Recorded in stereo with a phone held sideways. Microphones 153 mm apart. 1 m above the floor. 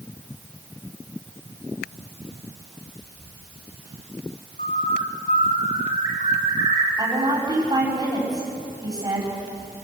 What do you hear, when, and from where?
4.6 s a bird: 60° left (ahead or behind), 3.5 m
7.0 s a woman speaking: 30° right (ahead or behind), 5 m